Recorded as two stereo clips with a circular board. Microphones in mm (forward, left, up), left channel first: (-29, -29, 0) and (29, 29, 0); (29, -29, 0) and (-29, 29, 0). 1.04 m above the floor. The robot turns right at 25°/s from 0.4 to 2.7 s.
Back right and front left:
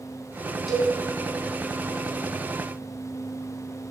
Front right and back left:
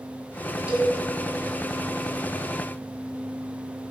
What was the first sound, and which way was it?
A cowbell, 135° left.